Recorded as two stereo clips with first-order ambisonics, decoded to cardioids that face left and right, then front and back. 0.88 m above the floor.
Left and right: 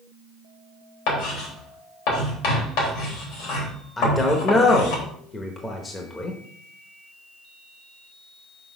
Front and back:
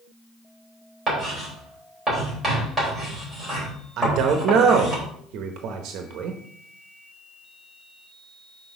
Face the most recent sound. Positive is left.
turn(degrees=160)